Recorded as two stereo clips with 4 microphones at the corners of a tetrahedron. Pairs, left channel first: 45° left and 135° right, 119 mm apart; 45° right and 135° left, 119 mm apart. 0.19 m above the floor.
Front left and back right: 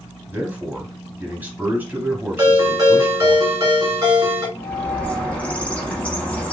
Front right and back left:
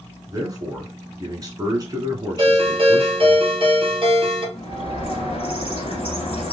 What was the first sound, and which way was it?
A man speaking, 160° left.